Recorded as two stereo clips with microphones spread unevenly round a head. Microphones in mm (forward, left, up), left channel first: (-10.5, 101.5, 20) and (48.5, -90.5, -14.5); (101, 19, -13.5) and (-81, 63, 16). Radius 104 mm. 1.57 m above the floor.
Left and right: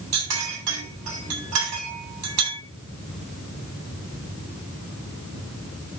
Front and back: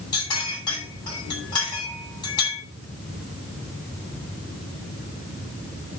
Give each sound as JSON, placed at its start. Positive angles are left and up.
{"t": 0.1, "sound": "a clink", "azimuth_deg": -85, "distance_m": 9.5}